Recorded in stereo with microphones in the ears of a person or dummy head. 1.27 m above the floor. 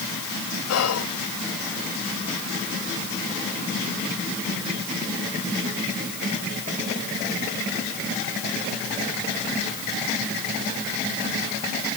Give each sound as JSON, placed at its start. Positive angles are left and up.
{"t": 0.7, "sound": "whispering", "side_deg": 85, "distance_m": 0.9}